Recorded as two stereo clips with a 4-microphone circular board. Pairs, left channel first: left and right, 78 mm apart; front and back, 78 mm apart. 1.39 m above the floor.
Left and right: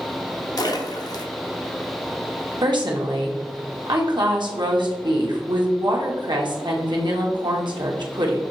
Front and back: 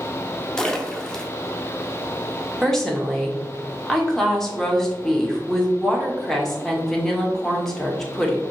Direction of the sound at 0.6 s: 80° left.